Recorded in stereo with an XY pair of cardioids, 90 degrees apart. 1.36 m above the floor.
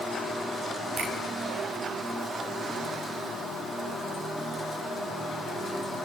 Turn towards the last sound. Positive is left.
turn(degrees=-50)